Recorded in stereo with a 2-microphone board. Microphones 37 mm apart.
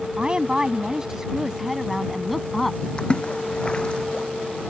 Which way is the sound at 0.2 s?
25° right (ahead or behind).